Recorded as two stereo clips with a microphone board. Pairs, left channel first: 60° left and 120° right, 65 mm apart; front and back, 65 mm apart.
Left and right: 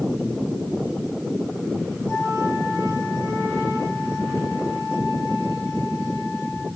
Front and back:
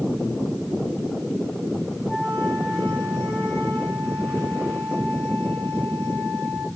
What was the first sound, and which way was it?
A flute, 50° left.